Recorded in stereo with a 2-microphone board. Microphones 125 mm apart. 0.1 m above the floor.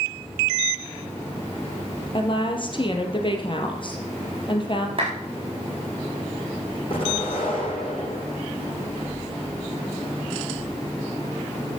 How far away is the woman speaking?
About 2 m.